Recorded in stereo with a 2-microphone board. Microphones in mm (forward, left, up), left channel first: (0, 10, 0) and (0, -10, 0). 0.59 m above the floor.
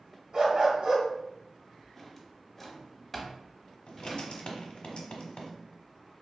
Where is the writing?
60° left (ahead or behind), 1.0 m.